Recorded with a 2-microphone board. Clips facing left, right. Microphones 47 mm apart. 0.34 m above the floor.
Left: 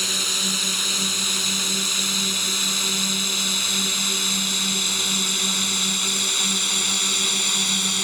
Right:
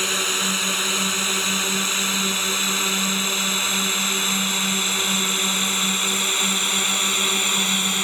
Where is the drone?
30° right (ahead or behind); by 8.1 s 25° right (ahead or behind).